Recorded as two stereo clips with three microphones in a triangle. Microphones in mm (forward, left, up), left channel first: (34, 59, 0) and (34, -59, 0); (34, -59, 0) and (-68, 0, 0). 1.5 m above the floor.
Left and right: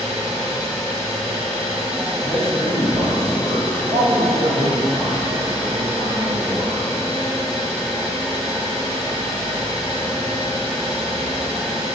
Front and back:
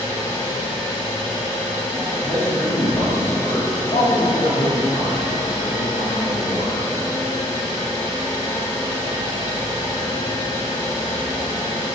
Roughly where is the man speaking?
Right.